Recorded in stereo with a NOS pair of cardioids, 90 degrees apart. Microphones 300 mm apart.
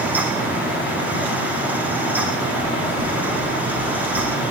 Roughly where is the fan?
Ahead.